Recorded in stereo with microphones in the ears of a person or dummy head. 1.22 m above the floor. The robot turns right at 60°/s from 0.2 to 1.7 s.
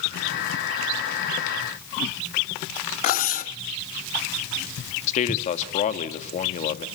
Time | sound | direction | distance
3.0 | cutlery clinking | 35° left (ahead or behind) | 1.1 m
5.1 | a man speaking | 45° left (ahead or behind) | 1.8 m